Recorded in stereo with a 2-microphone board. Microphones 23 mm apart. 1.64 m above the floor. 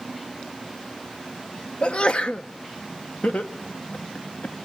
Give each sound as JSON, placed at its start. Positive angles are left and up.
{"t": 1.8, "sound": "a sneeze", "side_deg": 50, "distance_m": 0.8}
{"t": 3.2, "sound": "laughter", "side_deg": 70, "distance_m": 1.4}